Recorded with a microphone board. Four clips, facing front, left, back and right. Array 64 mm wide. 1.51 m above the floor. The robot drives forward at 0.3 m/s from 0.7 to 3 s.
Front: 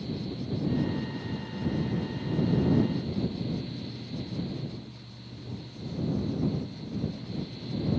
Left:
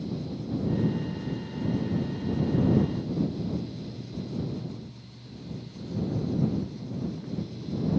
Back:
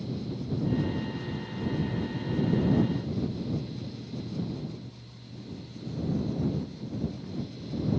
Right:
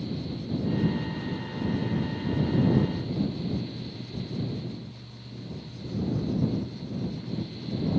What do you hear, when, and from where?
Only background noise.